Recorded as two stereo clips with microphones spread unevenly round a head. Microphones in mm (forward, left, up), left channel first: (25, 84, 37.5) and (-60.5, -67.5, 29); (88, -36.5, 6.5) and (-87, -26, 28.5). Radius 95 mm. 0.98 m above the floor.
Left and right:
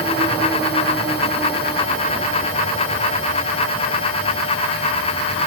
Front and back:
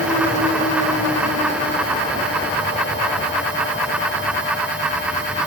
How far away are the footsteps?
No footsteps in this recording.